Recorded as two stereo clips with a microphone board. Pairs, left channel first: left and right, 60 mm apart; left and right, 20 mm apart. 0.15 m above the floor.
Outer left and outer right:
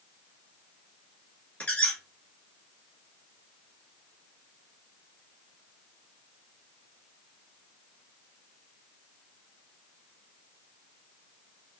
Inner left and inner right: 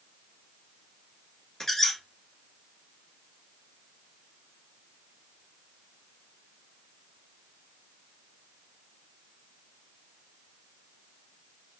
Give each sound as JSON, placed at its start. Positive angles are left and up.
{"t": 1.6, "sound": "a squeak", "side_deg": 25, "distance_m": 1.4}